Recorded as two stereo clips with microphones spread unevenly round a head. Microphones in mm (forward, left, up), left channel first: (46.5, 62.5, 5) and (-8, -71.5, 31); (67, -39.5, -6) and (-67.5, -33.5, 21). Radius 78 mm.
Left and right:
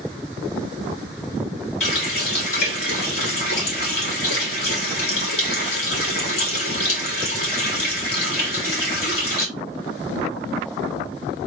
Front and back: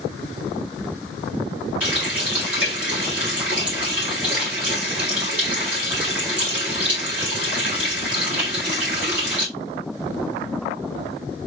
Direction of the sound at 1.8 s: 100° left.